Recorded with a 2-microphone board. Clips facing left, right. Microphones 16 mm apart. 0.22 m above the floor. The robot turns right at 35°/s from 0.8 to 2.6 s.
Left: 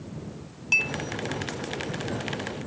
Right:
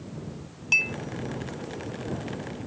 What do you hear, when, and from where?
0.7 s a clink: centre (ahead or behind); by 1.0 s 5° right (ahead or behind)